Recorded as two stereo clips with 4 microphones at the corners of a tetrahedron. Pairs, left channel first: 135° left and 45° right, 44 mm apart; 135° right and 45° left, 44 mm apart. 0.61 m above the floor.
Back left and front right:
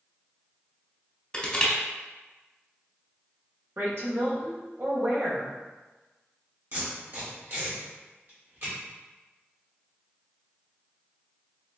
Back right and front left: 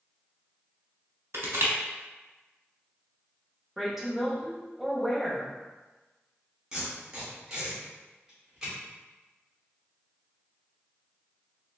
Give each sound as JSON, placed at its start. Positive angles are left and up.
{"t": 1.3, "sound": "crushing", "azimuth_deg": 60, "distance_m": 1.1}
{"t": 3.8, "sound": "a woman speaking", "azimuth_deg": -40, "distance_m": 1.0}
{"t": 6.7, "sound": "tape being pulled", "azimuth_deg": -30, "distance_m": 1.7}